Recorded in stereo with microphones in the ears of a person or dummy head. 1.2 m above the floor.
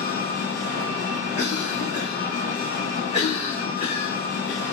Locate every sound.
0.0 s an engine running: 60° left (ahead or behind), 1.8 m
1.4 s a cough: 30° left (ahead or behind), 2 m